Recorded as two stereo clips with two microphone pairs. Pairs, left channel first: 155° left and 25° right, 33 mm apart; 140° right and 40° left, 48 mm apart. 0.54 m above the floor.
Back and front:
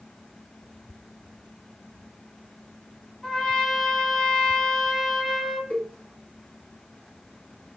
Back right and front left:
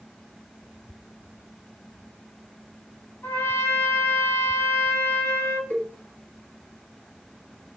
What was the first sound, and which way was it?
A trumpet, 135° right.